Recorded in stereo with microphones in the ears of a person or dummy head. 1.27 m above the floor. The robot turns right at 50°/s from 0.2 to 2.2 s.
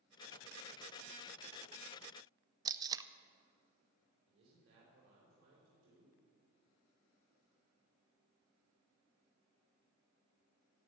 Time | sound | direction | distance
2.6 | tape being pulled | 20° right (ahead or behind) | 0.5 m
4.3 | a man speaking | 85° right | 4 m